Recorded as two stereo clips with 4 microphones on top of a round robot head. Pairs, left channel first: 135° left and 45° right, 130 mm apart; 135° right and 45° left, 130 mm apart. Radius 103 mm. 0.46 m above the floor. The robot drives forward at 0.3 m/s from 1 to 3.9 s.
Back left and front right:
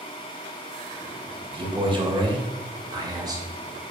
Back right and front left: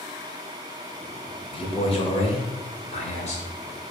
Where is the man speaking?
90° right, 2.5 m; by 3.9 s 110° right, 2.5 m.